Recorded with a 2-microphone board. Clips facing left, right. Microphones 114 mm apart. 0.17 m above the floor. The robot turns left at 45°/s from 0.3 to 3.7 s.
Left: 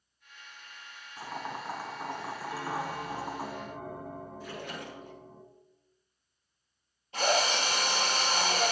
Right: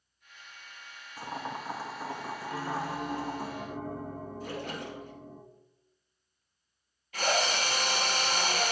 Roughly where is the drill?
Left.